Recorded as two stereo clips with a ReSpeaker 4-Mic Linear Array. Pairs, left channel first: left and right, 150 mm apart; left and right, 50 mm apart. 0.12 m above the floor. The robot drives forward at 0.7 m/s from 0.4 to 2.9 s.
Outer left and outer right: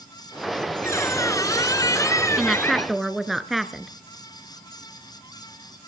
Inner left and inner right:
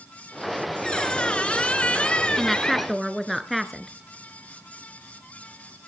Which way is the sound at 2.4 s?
Centre (ahead or behind).